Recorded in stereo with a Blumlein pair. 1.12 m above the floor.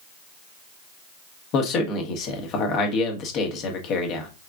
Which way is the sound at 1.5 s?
35° left.